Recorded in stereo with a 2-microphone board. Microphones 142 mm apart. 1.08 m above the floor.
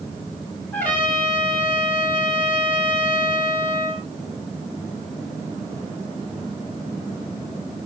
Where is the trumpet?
15° left (ahead or behind), 3 m.